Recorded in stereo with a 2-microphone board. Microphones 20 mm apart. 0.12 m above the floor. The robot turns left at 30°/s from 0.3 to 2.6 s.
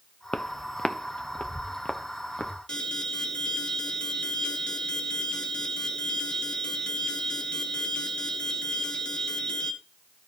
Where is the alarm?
45° left (ahead or behind), 1.4 m.